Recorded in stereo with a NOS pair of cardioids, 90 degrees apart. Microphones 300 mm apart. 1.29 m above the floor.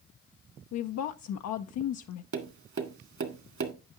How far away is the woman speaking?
About 0.6 m.